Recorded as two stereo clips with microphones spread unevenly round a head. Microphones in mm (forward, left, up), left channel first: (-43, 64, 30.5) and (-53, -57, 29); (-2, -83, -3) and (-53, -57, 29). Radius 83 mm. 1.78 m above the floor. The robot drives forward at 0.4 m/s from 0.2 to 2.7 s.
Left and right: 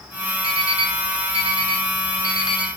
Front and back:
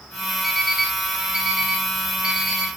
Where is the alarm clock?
130° right, 4 m; by 2.7 s 140° right, 4.5 m.